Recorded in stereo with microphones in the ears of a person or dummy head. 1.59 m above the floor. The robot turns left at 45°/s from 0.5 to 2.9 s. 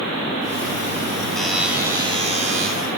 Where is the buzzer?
10° left, 3 m; by 2.7 s 50° right, 3 m.